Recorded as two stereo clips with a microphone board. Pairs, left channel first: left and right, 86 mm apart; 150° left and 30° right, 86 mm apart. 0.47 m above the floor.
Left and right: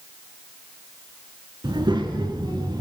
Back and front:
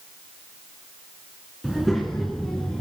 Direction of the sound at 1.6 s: 115° right.